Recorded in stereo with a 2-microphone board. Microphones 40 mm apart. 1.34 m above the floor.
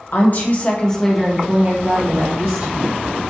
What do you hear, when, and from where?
0.1 s a woman speaking: 55° left (ahead or behind), 0.8 m; by 3.0 s 60° right (ahead or behind), 1.2 m